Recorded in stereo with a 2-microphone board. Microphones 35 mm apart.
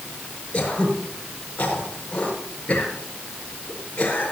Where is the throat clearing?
30° left (ahead or behind), 5.5 m.